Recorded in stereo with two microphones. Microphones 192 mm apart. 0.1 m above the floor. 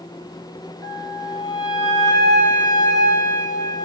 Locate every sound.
0.8 s a flute: 20° left (ahead or behind), 0.7 m